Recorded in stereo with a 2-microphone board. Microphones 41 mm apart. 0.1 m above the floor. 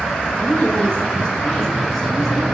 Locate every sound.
0.3 s a woman speaking: 40° left (ahead or behind), 2 m; by 2.5 s 15° right (ahead or behind), 1.6 m